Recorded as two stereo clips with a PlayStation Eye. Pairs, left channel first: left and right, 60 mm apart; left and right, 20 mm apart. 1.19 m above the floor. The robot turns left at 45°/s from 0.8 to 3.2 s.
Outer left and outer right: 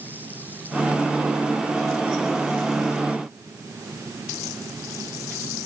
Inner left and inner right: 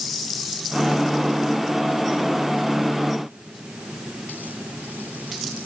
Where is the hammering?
I don't hear hammering.